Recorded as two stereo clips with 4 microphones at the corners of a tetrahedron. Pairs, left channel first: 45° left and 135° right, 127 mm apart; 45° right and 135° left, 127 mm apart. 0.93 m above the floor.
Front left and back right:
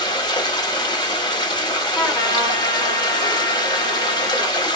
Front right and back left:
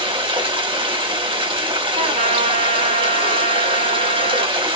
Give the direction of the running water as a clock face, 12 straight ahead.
9 o'clock.